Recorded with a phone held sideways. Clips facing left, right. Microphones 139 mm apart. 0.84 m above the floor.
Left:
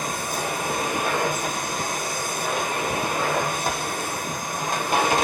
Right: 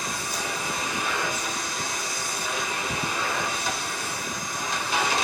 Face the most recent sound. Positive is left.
turn(degrees=50)  # may be behind; listen again after turning